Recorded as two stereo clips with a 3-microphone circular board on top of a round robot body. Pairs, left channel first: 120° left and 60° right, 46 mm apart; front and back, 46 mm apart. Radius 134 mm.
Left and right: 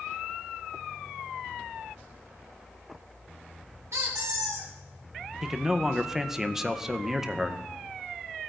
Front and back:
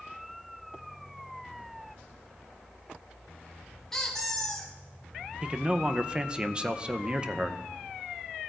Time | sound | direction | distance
3.9 | a squeak | 80° right | 0.9 m
5.4 | a man speaking | 135° right | 0.8 m